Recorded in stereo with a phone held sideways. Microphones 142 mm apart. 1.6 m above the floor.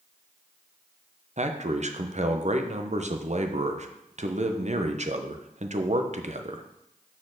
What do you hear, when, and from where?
1.4 s a man speaking: 55° right (ahead or behind), 0.8 m